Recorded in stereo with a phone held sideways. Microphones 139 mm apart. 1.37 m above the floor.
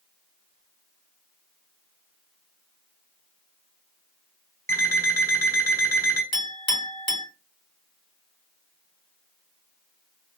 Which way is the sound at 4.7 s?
20° left (ahead or behind).